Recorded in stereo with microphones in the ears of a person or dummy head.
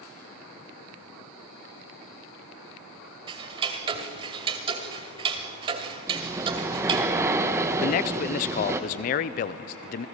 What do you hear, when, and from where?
3.3 s ticking: 25° right (ahead or behind), 1.9 m
6.1 s breathing: 15° right (ahead or behind), 1.2 m
7.8 s a man speaking: 40° left (ahead or behind), 0.6 m